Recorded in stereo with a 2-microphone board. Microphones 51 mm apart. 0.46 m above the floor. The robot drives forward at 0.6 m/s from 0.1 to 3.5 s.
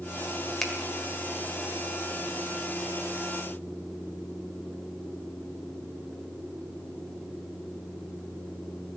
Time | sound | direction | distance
0.6 | a finger snap | 5° left (ahead or behind) | 1.6 m